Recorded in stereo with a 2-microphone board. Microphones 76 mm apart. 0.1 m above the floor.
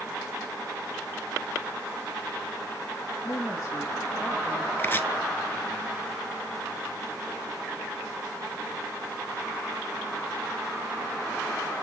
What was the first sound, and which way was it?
A woman speaking, 50° left (ahead or behind).